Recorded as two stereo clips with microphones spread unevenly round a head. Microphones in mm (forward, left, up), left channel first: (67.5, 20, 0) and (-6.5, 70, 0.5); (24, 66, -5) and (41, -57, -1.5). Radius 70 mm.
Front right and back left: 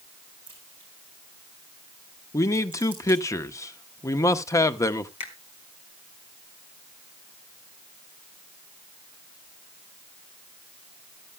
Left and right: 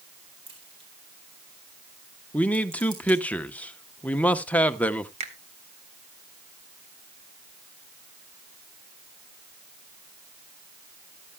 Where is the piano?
I don't hear a piano.